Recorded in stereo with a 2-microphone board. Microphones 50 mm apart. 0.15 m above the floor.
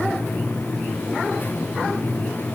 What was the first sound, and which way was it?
Only background noise.